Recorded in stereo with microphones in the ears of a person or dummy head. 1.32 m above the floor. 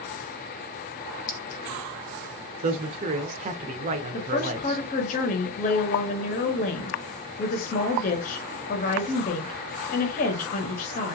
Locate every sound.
1.3 s a clink: 40° left (ahead or behind), 0.7 m
2.6 s a man speaking: 35° right (ahead or behind), 0.6 m
4.1 s a woman speaking: 40° left (ahead or behind), 0.8 m